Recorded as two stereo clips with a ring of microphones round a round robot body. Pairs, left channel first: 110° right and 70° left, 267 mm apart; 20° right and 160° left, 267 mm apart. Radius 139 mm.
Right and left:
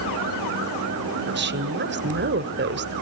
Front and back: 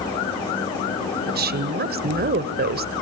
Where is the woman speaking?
110° left, 1.7 m.